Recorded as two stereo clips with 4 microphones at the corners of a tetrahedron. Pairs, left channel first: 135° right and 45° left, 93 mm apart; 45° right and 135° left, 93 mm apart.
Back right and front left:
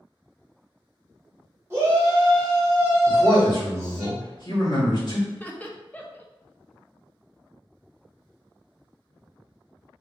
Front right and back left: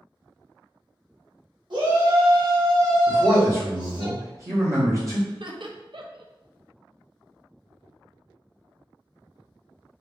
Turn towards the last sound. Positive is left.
turn(degrees=155)